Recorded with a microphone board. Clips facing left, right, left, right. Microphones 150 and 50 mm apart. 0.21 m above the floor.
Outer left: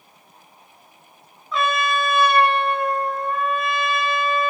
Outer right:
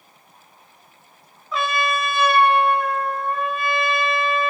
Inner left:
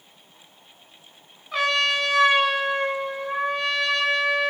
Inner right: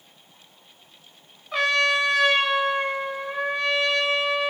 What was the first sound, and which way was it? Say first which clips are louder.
A trumpet: outer left 1 dB, inner right 1 dB; centre (ahead or behind).